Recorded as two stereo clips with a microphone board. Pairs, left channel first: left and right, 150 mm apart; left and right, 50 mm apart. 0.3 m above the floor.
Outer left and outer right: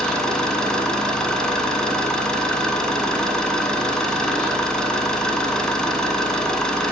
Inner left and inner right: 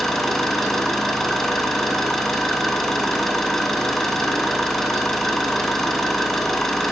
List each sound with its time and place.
0.0 s an engine running: 5° left (ahead or behind), 0.9 m